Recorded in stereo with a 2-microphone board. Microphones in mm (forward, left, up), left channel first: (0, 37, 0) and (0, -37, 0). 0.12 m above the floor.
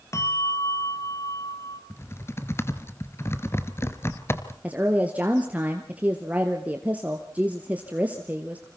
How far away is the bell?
About 2 m.